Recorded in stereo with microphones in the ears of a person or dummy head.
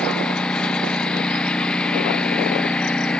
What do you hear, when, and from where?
0.0 s a lawn mower: 5° left (ahead or behind)